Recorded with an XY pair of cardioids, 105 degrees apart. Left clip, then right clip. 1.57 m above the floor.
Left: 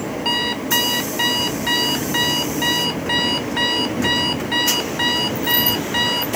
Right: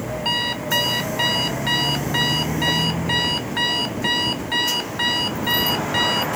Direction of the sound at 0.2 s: 5° left.